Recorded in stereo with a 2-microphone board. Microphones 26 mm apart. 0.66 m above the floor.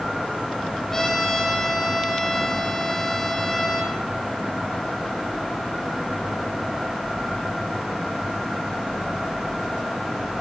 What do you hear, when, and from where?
0.9 s a trumpet: 15° left (ahead or behind), 7.5 m